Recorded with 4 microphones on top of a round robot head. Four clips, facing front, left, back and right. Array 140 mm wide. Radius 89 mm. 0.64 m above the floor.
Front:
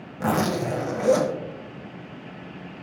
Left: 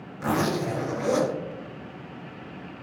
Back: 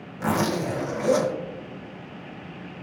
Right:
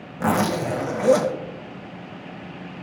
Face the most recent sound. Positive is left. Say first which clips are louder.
# right 4 dB, front 1 dB
turn(degrees=-60)